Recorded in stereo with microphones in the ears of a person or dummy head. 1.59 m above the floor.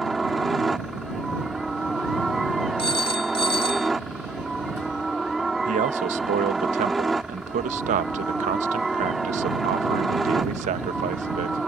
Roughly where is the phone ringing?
Left.